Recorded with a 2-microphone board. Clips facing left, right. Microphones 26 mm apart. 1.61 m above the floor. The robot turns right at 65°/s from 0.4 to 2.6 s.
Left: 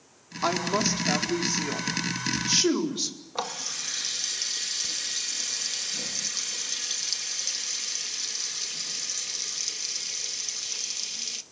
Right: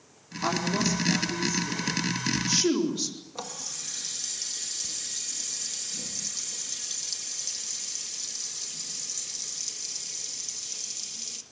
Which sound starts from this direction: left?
A running tap, at 3.4 s.